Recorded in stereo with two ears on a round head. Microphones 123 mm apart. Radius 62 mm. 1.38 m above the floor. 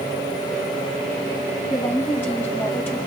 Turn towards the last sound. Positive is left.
turn(degrees=15)  # may be behind; listen again after turning